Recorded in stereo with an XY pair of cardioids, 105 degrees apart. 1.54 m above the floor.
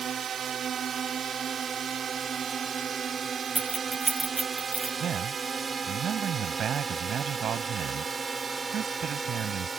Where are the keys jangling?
25° right.